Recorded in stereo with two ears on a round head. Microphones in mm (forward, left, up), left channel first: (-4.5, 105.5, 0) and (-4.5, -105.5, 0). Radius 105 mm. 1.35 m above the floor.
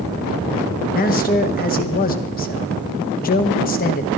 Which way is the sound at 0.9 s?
40° left (ahead or behind).